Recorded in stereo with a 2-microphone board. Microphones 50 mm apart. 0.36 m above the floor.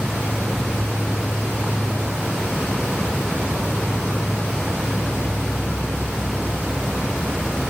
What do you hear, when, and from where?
0.0 s an insect: 20° left (ahead or behind)